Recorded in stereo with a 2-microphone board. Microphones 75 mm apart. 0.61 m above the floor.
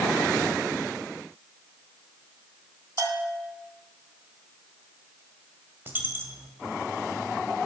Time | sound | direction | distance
3.0 | a bell | 50° right (ahead or behind) | 0.8 m
5.9 | a dropped coin | 30° right (ahead or behind) | 0.8 m